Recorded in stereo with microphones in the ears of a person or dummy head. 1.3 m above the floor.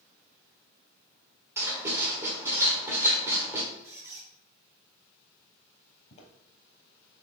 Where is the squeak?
10° right (ahead or behind), 1.8 m.